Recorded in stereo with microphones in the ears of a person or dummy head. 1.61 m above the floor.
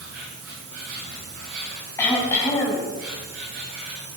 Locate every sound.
0.0 s an insect: 75° right (ahead or behind), 6.5 m
2.0 s throat clearing: 20° left (ahead or behind), 4.5 m